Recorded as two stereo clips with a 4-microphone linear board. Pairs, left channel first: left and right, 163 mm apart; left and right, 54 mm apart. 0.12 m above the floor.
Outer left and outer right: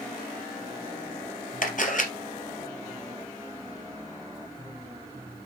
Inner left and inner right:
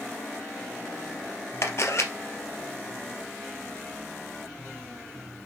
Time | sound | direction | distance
1.6 | a camera shutter | 55° left (ahead or behind) | 2.5 m